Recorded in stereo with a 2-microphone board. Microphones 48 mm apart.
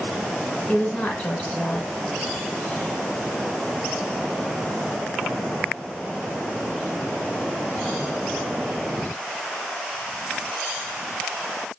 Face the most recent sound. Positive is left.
turn(degrees=20)  # may be behind; listen again after turning